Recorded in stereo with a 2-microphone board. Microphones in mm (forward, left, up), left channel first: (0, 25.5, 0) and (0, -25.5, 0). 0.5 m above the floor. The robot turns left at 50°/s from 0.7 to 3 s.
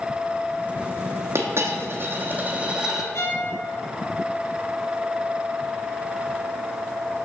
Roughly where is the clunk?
I don't hear a clunk.